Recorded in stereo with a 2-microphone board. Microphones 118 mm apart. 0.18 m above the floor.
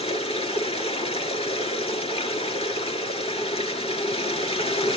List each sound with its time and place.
0.0 s running water: 60° left (ahead or behind), 3 m